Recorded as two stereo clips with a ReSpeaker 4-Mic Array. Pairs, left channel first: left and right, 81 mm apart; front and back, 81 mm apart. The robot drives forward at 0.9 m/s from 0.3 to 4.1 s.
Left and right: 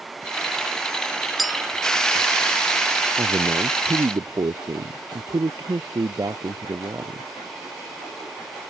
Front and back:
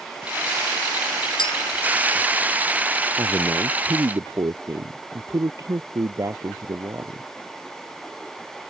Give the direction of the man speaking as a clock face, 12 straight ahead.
4 o'clock.